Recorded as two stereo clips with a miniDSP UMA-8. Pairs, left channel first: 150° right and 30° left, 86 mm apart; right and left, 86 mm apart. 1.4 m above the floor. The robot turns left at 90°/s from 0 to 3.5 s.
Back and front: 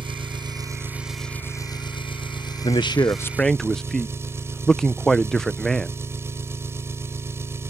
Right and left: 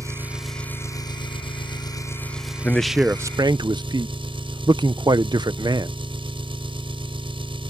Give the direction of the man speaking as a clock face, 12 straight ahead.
5 o'clock.